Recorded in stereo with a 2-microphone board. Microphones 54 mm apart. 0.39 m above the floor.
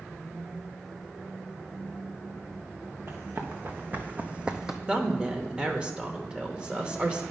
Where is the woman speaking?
20° right (ahead or behind), 0.8 m.